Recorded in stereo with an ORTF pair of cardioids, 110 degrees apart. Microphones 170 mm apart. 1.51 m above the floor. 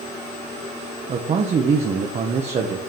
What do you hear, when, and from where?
1.1 s a man speaking: 40° right, 0.8 m